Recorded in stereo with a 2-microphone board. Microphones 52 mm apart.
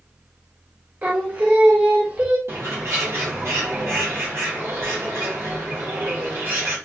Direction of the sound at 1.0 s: 35° right (ahead or behind).